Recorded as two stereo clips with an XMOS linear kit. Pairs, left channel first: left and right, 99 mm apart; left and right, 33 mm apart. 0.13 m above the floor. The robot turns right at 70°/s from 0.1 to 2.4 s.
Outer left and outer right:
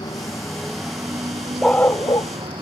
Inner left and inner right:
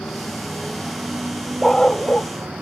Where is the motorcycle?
135° left; by 2.6 s 65° right.